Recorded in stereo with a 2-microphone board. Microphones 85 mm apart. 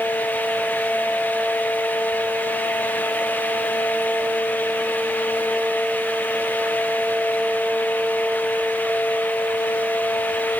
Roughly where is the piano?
I don't hear a piano.